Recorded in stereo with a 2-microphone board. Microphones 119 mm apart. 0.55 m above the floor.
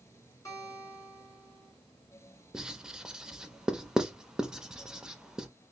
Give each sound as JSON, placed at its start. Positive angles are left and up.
{"t": 0.5, "sound": "a guitar", "side_deg": 25, "distance_m": 1.9}
{"t": 2.5, "sound": "writing", "side_deg": -5, "distance_m": 0.6}